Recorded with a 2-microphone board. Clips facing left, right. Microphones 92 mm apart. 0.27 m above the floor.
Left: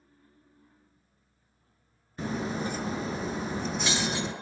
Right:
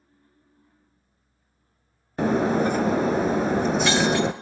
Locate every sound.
2.2 s breaking glass: 85° right, 1.0 m